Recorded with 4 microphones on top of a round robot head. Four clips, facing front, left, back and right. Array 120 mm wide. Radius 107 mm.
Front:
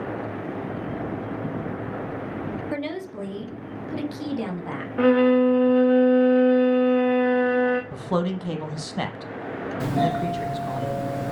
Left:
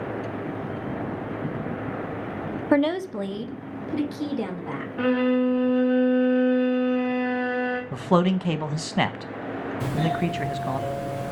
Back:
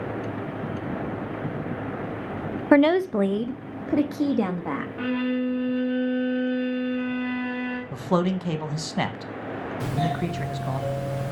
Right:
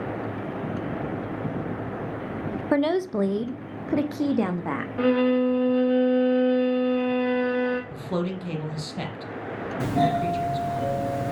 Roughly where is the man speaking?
Left.